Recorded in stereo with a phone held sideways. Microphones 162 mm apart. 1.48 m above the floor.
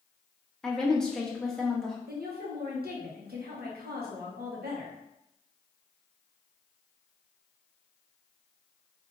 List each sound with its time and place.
0.6 s a woman speaking: 5° left (ahead or behind), 0.8 m
2.1 s a woman speaking: 70° right (ahead or behind), 1.0 m